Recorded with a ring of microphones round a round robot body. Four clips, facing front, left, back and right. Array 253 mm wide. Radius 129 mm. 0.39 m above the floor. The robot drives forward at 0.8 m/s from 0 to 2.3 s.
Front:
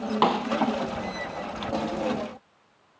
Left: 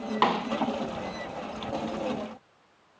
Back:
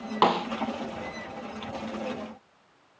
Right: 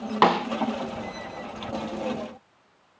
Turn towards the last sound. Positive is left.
turn(degrees=-155)